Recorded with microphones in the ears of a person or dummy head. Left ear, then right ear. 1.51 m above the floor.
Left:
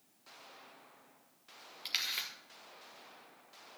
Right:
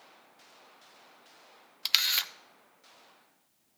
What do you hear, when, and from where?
1.9 s a camera shutter: 35° right (ahead or behind), 0.6 m